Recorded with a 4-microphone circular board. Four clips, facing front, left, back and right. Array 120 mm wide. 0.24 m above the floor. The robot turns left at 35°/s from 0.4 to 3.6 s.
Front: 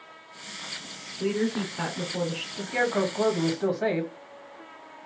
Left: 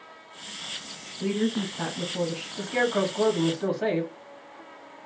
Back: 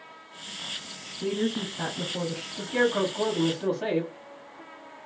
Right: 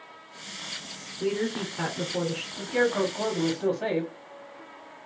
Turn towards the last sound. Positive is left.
turn(degrees=0)